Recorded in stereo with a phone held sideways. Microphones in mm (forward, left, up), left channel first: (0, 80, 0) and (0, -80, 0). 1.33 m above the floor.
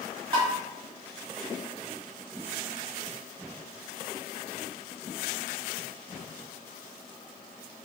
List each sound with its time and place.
0.3 s tapping: 30° right (ahead or behind), 1.4 m